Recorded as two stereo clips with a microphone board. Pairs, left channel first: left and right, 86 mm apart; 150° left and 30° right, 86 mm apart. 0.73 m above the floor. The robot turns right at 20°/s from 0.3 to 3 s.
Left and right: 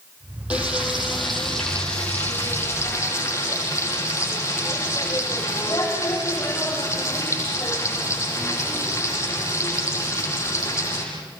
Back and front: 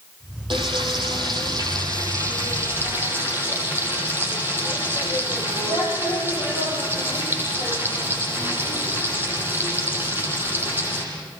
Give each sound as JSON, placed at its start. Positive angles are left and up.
{"t": 0.5, "sound": "frying", "azimuth_deg": -15, "distance_m": 6.5}